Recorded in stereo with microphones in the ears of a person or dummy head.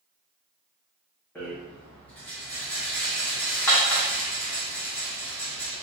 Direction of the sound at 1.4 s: 10° left (ahead or behind).